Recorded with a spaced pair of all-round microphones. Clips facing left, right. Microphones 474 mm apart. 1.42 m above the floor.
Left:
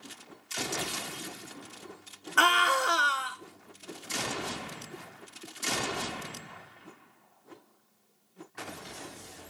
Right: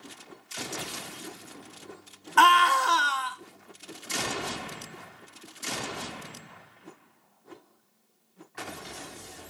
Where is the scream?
15° right (ahead or behind), 0.6 m.